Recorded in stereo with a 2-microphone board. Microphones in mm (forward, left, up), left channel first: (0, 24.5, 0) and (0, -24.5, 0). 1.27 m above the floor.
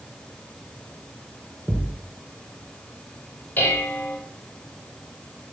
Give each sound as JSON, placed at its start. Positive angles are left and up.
{"t": 1.7, "sound": "a thud", "side_deg": -30, "distance_m": 1.8}
{"t": 3.6, "sound": "dishes clattering", "side_deg": 35, "distance_m": 3.5}